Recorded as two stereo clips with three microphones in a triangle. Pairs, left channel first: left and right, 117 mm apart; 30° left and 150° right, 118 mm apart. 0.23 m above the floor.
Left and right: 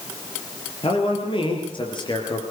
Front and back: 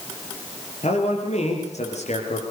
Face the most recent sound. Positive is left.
turn(degrees=40)